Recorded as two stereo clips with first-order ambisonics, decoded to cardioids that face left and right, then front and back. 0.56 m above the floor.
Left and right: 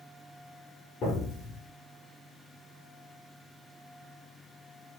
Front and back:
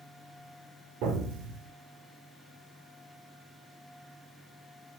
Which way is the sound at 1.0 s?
150° left.